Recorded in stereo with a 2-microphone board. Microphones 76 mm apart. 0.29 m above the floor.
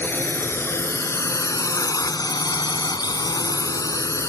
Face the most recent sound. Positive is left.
turn(degrees=40)  # may be behind; listen again after turning